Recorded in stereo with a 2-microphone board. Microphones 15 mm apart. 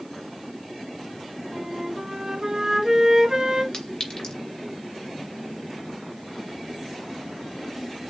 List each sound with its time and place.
1.5 s a flute: 35° right (ahead or behind), 1.8 m
3.7 s a clink: 45° left (ahead or behind), 2.5 m